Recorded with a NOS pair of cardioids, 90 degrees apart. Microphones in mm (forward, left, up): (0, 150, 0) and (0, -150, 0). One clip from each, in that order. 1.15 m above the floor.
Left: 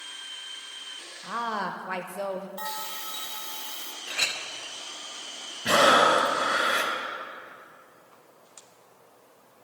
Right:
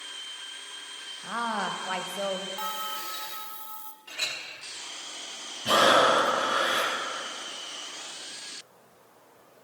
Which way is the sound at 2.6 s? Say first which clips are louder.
Right 2 dB; 15° left.